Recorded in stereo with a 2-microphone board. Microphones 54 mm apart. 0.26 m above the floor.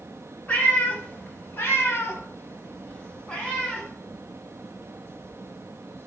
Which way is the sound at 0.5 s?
25° left (ahead or behind).